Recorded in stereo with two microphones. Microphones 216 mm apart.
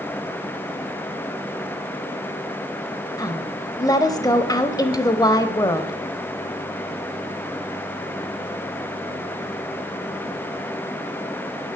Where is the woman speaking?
15° left (ahead or behind), 1.0 m.